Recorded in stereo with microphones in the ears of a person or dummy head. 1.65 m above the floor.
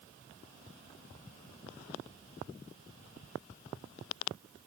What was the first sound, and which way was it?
Only background noise.